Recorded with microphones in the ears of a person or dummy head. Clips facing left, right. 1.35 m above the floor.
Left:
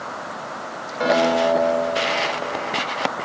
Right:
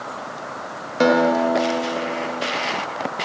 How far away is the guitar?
About 1.1 m.